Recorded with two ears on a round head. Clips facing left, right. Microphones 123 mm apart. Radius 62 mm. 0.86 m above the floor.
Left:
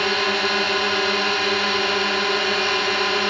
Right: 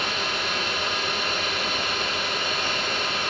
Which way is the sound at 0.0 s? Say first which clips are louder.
Left 8 dB; 60° left (ahead or behind).